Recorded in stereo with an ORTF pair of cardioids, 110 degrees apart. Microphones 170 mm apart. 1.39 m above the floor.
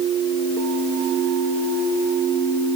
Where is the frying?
I don't hear frying.